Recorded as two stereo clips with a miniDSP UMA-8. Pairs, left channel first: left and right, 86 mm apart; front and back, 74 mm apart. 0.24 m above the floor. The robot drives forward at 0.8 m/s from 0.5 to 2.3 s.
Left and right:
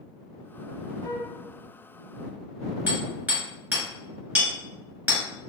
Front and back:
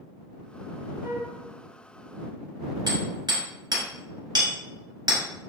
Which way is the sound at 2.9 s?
160° right.